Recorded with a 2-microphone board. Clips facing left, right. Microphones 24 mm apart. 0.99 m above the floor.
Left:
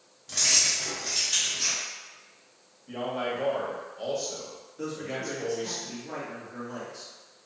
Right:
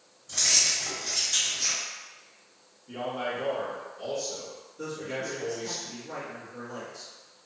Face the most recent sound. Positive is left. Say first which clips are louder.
# even
turn(degrees=50)  # may be behind; listen again after turning